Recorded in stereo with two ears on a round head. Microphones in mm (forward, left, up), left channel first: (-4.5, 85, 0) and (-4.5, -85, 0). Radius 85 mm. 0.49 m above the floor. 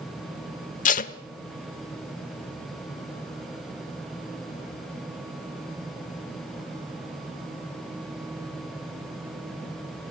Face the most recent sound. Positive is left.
turn(degrees=45)  # may be behind; listen again after turning